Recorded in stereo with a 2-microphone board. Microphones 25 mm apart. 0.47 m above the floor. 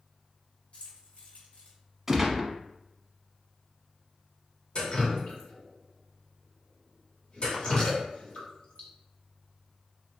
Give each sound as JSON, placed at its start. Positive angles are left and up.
{"t": 0.7, "sound": "keys jangling", "side_deg": 60, "distance_m": 1.3}
{"t": 2.1, "sound": "a gunshot", "side_deg": -15, "distance_m": 0.7}
{"t": 4.8, "sound": "dripping", "side_deg": 45, "distance_m": 1.2}